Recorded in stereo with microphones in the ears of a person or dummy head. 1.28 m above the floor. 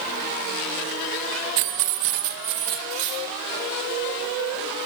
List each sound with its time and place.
1.6 s keys jangling: 65° right (ahead or behind), 0.7 m; by 2.8 s 80° right, 1.9 m
2.9 s cutlery clinking: 70° right (ahead or behind), 4 m